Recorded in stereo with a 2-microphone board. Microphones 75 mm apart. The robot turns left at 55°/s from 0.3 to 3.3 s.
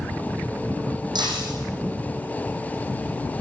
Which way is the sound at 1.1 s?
75° right (ahead or behind).